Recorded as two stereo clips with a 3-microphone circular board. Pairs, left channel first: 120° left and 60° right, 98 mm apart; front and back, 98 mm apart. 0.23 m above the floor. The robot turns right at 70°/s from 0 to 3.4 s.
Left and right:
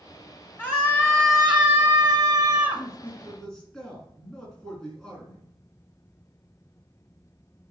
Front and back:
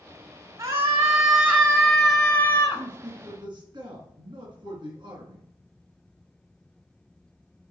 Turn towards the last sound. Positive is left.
turn(degrees=-160)